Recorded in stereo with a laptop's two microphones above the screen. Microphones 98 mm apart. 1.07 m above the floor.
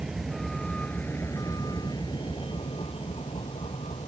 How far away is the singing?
I don't hear singing.